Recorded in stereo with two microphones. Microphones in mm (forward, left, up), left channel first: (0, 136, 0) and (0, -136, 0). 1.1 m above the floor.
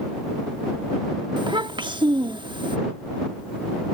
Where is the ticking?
I don't hear ticking.